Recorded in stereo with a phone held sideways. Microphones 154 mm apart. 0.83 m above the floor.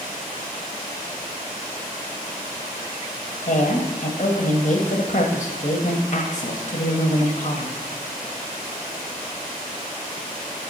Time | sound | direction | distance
3.5 | a woman speaking | 55° left (ahead or behind) | 1.1 m